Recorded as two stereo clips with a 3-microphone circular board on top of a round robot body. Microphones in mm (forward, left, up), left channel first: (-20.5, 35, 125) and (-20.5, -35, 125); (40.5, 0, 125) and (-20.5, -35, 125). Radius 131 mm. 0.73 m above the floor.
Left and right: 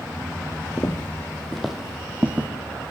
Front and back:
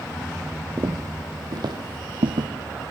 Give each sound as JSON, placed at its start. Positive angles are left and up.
{"t": 0.8, "sound": "footsteps", "azimuth_deg": 150, "distance_m": 1.7}